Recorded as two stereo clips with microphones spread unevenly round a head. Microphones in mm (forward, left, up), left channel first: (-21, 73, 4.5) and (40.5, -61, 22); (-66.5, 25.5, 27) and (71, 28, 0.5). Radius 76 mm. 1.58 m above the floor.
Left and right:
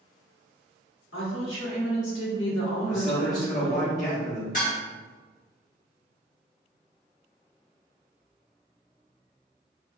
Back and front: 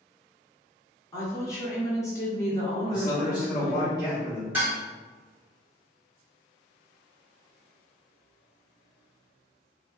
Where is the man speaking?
120° left, 1.0 m.